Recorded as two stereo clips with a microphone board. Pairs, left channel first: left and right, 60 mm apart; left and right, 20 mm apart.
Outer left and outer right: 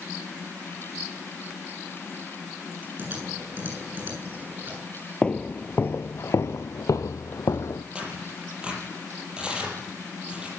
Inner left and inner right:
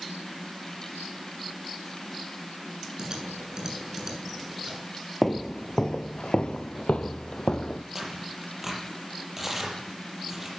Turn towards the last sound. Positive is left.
turn(degrees=-15)  # may be behind; listen again after turning